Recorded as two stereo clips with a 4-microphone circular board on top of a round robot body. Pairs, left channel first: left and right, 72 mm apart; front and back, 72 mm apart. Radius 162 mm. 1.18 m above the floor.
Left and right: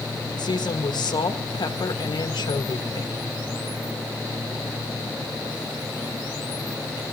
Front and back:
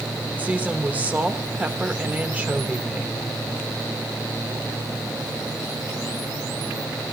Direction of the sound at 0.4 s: 110° left.